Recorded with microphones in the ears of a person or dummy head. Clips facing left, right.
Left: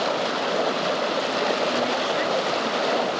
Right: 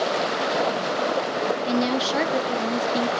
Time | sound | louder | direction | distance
1.7 | a woman speaking | right 1 dB | 55° right (ahead or behind) | 1.1 m